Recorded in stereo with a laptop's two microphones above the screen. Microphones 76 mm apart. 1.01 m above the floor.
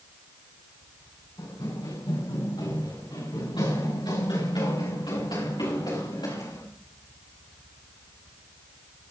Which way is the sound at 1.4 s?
75° left (ahead or behind).